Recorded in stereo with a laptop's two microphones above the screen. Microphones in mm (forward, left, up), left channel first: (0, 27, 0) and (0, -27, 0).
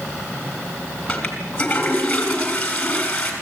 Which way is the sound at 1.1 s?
15° left (ahead or behind).